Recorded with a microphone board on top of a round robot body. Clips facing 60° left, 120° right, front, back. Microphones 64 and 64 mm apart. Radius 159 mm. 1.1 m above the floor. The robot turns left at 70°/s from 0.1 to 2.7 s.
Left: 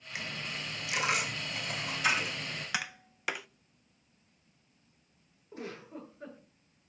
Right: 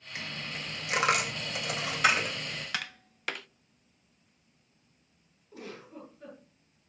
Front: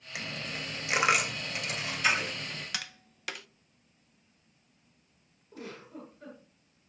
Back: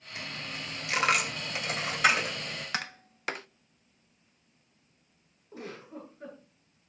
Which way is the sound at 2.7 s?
135° left.